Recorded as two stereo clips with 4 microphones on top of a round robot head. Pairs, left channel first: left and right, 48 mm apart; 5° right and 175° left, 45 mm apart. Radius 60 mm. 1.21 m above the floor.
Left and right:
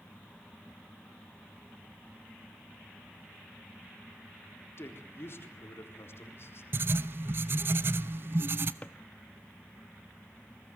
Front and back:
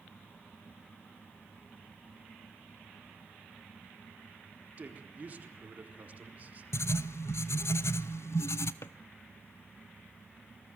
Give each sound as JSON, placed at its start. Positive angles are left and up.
{"t": 4.8, "sound": "a man speaking", "azimuth_deg": 125, "distance_m": 4.0}
{"t": 6.7, "sound": "writing", "azimuth_deg": -40, "distance_m": 0.6}
{"t": 8.8, "sound": "a drawer", "azimuth_deg": 20, "distance_m": 0.9}